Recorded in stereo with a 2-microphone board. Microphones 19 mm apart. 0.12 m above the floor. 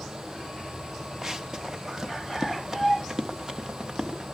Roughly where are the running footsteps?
Right.